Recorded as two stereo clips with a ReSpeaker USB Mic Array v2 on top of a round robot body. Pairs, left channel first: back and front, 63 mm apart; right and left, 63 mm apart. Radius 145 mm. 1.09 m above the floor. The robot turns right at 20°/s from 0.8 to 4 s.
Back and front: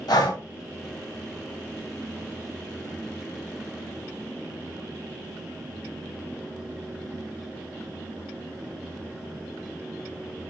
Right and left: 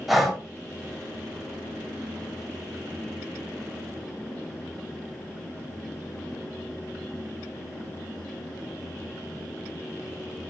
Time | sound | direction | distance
0.1 | breathing | 175° left | 1.6 m